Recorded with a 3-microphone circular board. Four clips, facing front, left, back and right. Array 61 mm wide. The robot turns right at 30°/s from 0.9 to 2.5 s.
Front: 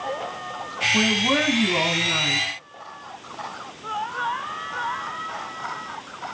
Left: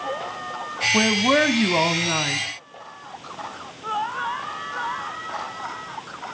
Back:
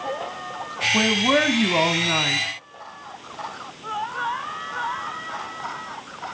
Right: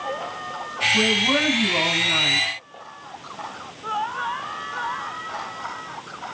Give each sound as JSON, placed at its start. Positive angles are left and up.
{"t": 0.9, "sound": "a man speaking", "azimuth_deg": 110, "distance_m": 1.2}